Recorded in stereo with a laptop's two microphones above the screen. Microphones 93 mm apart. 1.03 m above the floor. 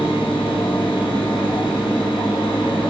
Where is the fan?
70° left (ahead or behind), 4 m.